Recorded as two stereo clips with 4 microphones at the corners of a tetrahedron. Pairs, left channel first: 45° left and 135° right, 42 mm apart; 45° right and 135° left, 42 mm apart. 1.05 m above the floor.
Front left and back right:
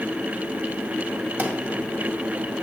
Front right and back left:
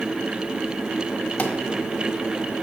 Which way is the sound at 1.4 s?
95° right.